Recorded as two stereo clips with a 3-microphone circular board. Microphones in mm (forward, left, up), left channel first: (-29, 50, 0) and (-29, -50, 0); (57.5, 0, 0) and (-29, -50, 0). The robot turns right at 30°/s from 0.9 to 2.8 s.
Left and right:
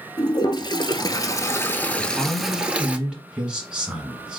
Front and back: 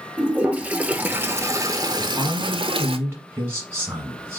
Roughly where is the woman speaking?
Behind.